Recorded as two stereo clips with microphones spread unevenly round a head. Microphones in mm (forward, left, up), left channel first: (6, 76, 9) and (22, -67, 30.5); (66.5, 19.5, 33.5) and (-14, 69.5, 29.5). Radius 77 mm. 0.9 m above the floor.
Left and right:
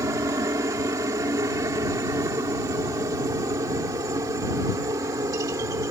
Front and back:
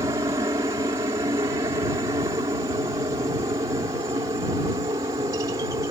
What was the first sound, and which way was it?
A helicopter, 155° right.